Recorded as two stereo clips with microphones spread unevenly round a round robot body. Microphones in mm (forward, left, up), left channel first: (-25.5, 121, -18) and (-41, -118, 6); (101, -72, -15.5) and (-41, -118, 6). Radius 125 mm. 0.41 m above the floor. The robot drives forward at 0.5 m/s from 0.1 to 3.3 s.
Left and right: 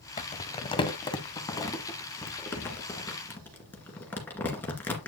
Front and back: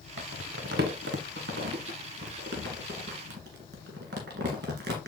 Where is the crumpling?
145° left, 0.8 m; by 5.1 s 170° left, 2.5 m.